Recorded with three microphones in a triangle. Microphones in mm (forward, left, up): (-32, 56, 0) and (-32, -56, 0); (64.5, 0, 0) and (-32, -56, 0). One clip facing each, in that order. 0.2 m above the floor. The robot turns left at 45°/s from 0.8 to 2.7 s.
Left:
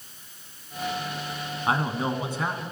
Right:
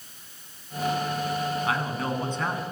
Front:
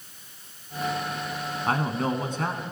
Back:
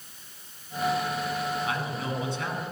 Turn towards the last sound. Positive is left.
turn(degrees=-5)